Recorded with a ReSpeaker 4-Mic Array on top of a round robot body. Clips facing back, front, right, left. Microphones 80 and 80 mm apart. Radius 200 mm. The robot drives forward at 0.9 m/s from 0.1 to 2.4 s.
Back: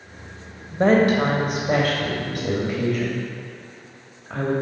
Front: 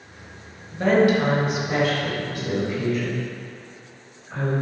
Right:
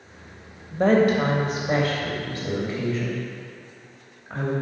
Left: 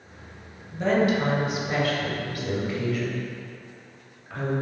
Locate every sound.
0.7 s a woman speaking: 125° right, 2.0 m; by 4.5 s 150° right, 3 m